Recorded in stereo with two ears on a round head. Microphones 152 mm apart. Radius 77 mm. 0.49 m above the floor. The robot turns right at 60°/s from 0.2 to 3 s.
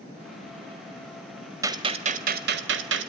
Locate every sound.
1.6 s a gunshot: 160° right, 1.3 m; by 3.1 s 80° right, 1.3 m